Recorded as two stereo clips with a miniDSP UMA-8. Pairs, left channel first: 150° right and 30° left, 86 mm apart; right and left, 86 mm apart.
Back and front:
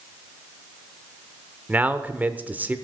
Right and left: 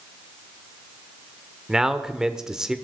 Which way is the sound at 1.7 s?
20° left.